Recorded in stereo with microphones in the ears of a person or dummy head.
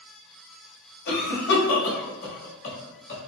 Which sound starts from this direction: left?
A cough, at 1.1 s.